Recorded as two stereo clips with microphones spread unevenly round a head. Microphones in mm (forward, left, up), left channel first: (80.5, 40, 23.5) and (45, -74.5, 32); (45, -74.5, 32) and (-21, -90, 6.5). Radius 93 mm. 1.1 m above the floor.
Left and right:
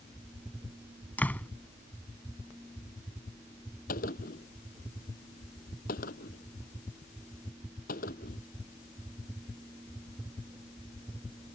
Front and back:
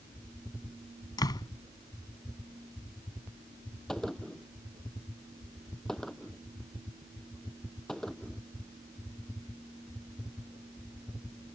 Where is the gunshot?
100° left.